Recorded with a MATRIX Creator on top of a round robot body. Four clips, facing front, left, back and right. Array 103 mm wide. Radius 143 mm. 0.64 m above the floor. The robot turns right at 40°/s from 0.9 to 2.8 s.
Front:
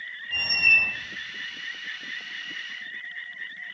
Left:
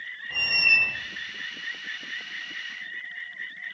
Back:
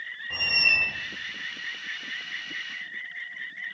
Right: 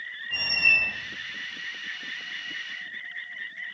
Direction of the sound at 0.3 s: 160° left.